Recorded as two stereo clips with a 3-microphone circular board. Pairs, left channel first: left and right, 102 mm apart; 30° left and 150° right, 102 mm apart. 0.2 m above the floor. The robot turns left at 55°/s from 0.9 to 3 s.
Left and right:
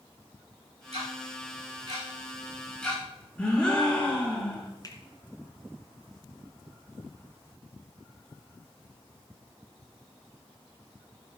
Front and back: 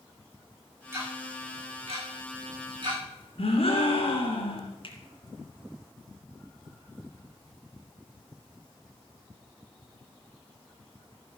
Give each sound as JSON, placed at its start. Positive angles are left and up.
{"t": 0.9, "sound": "ticking", "azimuth_deg": -85, "distance_m": 7.5}
{"t": 3.4, "sound": "a gasp", "azimuth_deg": 10, "distance_m": 3.0}
{"t": 4.8, "sound": "a finger snap", "azimuth_deg": 45, "distance_m": 2.5}